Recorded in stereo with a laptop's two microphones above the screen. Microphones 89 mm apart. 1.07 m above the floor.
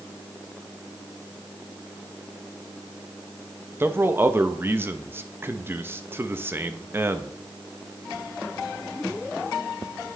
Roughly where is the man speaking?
Right.